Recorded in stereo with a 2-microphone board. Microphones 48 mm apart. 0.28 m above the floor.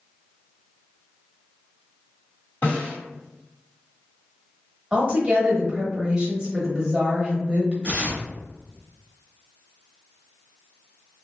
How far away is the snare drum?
About 1.6 m.